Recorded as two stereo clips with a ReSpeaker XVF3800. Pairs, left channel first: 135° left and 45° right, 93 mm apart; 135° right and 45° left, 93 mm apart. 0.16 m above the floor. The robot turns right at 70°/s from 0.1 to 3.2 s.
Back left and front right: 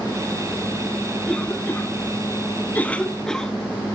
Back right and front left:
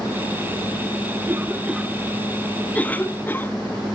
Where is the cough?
70° left, 1.1 m; by 3.5 s 155° right, 1.1 m.